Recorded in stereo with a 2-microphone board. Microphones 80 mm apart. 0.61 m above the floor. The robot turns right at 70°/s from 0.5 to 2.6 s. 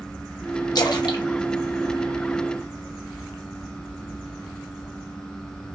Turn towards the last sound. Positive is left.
turn(degrees=-10)  # may be behind; listen again after turning